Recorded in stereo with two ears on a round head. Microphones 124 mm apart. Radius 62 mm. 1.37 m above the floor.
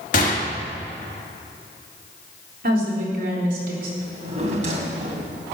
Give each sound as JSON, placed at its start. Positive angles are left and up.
{"t": 0.1, "sound": "a gunshot", "side_deg": 60, "distance_m": 2.5}
{"t": 2.6, "sound": "a woman speaking", "side_deg": -70, "distance_m": 3.5}
{"t": 4.0, "sound": "a drawer", "side_deg": -50, "distance_m": 2.5}